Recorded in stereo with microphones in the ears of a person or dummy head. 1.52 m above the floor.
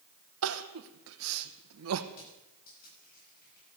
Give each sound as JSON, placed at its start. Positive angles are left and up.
{"t": 0.4, "sound": "crying", "side_deg": -75, "distance_m": 1.0}
{"t": 2.1, "sound": "crushing", "side_deg": 60, "distance_m": 9.0}